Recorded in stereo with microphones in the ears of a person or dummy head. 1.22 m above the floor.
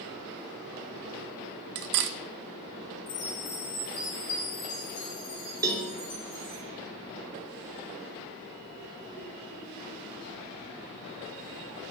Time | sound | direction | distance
1.8 | cutlery clinking | 55° right (ahead or behind) | 0.5 m
3.1 | a chime | 30° left (ahead or behind) | 1.6 m
5.6 | a cowbell | 20° right (ahead or behind) | 0.7 m